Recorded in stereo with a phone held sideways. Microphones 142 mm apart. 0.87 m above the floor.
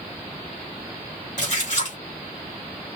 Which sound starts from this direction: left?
A splash, at 1.4 s.